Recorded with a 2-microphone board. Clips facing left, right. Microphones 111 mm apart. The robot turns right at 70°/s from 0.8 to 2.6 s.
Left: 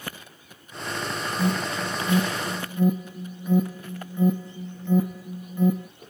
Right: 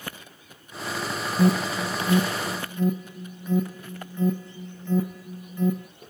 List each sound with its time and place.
1.4 s an alarm: 35° right (ahead or behind), 0.6 m; by 5.9 s 10° left (ahead or behind), 0.6 m